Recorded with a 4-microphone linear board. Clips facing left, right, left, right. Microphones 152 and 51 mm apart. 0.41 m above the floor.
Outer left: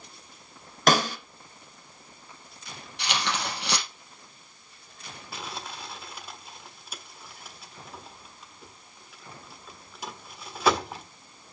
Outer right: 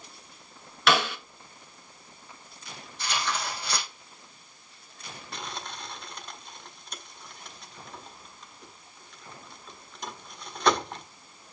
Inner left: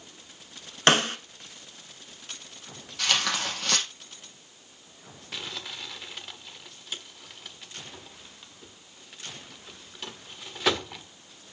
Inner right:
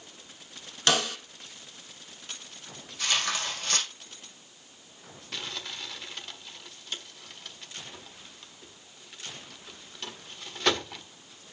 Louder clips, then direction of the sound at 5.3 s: Outer left 1 dB, even; 5° left (ahead or behind).